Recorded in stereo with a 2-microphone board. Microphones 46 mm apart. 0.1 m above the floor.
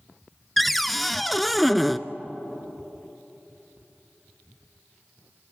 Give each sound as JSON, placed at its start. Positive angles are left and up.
{"t": 0.6, "sound": "a cupboard door", "side_deg": 0, "distance_m": 0.5}